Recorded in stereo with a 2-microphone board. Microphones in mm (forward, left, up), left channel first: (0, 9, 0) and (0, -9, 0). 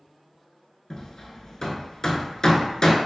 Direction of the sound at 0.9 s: 35° left (ahead or behind).